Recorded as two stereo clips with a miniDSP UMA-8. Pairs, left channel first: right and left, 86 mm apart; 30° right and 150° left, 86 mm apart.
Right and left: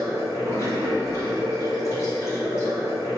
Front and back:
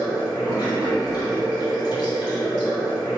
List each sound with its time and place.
0.0 s running water: 45° right, 1.6 m